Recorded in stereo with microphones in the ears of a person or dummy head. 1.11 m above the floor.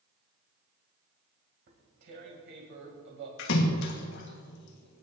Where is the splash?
60° left (ahead or behind), 1.4 m.